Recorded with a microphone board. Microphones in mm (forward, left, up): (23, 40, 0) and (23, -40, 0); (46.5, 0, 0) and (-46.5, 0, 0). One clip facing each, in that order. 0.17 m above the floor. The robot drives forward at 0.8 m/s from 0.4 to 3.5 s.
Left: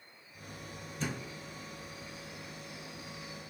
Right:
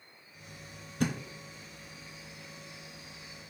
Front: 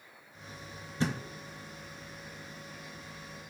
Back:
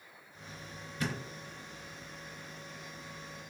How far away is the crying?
No crying in this recording.